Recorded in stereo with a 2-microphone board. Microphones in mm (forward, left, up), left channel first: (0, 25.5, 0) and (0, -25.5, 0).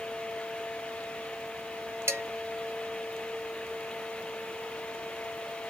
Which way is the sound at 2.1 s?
55° right (ahead or behind).